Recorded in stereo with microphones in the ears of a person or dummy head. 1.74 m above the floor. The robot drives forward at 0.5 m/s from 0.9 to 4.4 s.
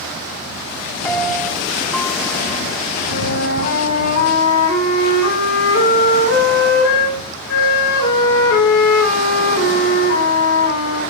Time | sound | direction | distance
1.0 | a piano | 10° left (ahead or behind) | 0.6 m
3.1 | a flute | 70° left (ahead or behind) | 4 m